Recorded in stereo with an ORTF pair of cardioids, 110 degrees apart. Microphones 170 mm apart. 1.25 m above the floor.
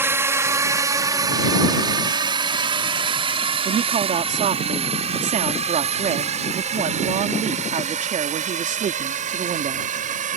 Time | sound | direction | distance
0.0 | a drone | 15° right | ?
3.6 | a man speaking | 45° right | ?